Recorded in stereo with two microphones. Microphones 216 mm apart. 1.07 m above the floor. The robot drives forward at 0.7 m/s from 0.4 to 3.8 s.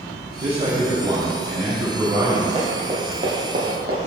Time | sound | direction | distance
0.4 | a man speaking | 30° right (ahead or behind) | 1.4 m
2.5 | running footsteps | 30° right (ahead or behind) | 2.5 m